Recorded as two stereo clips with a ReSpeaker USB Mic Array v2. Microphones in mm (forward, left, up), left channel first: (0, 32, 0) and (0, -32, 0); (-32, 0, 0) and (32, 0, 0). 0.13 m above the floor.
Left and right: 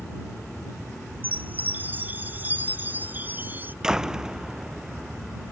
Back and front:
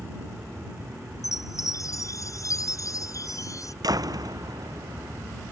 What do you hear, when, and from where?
0.0 s an aircraft: 20° left; by 5.5 s straight ahead
1.2 s a chime: 150° right
3.8 s a door slam: 10° right